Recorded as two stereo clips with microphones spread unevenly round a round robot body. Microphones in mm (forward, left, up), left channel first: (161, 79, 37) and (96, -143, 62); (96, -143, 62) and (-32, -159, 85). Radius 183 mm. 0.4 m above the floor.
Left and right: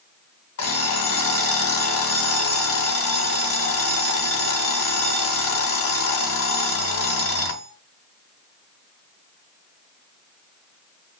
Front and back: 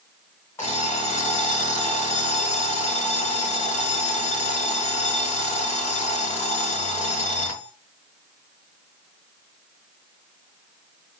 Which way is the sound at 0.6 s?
80° left.